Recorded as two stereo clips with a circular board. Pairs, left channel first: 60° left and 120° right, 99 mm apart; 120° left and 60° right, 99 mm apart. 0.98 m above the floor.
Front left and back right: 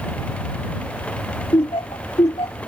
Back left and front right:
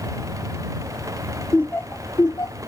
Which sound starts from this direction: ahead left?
Laughter, at 1.5 s.